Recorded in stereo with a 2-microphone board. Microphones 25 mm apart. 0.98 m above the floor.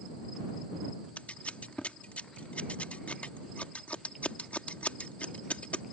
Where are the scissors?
70° left (ahead or behind).